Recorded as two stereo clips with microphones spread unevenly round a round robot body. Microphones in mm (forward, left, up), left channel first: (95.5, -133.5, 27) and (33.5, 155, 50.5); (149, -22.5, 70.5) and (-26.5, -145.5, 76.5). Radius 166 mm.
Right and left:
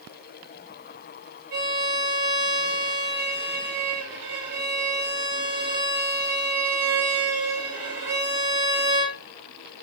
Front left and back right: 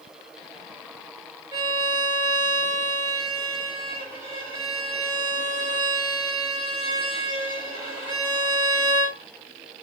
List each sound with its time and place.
1.5 s a violin: 135° left, 1.1 m